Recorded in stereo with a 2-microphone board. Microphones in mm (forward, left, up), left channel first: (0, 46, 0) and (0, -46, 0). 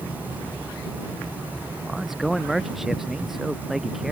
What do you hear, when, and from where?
1.8 s a man speaking: 5° right (ahead or behind)